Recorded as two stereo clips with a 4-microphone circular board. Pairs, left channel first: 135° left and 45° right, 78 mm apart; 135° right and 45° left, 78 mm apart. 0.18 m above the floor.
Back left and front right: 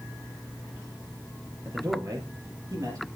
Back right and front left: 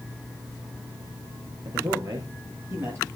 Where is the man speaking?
10° left, 4.5 m; by 3.1 s 10° right, 4.5 m.